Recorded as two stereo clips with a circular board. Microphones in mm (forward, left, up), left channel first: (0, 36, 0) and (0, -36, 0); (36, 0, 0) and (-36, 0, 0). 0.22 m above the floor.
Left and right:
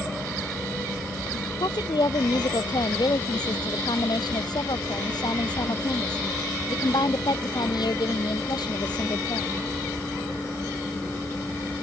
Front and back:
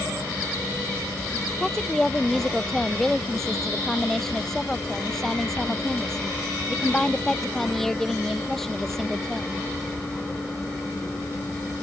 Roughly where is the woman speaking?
Left.